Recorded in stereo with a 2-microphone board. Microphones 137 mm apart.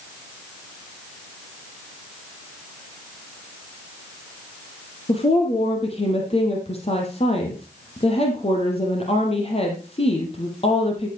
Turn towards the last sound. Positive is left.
turn(degrees=45)  # may be behind; listen again after turning